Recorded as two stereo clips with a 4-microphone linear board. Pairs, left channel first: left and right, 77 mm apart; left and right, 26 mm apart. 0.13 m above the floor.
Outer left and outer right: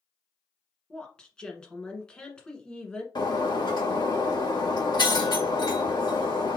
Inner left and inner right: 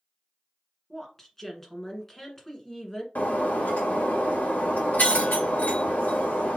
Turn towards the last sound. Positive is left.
turn(degrees=80)